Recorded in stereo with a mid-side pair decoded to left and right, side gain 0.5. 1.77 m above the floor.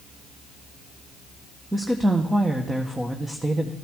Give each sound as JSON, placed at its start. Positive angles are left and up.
{"t": 1.7, "sound": "a woman speaking", "azimuth_deg": -15, "distance_m": 1.5}